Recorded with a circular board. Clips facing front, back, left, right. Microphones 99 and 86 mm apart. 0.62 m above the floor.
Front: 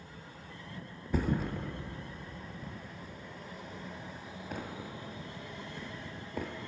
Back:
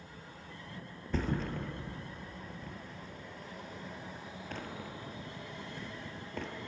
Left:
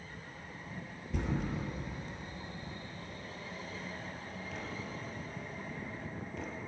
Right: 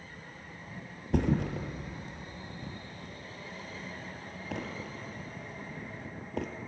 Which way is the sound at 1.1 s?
80° right.